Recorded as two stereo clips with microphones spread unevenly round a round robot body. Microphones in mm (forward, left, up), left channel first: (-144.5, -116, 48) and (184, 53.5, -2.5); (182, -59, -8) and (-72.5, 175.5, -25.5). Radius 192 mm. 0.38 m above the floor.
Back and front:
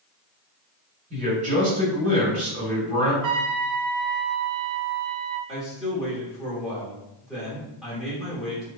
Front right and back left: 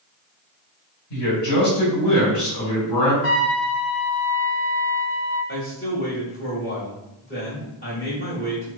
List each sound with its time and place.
1.1 s a man speaking: 30° right, 1.5 m
3.2 s a trumpet: 20° left, 0.6 m
5.5 s a man speaking: 35° right, 1.2 m